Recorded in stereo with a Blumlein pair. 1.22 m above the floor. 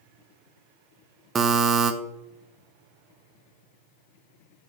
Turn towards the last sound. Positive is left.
turn(degrees=-20)